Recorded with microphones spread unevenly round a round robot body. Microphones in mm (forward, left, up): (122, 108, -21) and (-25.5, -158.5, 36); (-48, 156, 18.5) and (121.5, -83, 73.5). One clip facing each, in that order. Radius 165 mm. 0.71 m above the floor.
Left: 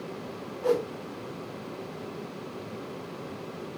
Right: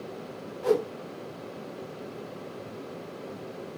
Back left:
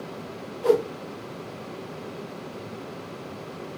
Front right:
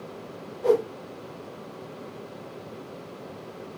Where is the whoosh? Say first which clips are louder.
Right 1 dB, back left 1 dB; 170° left, 0.9 m.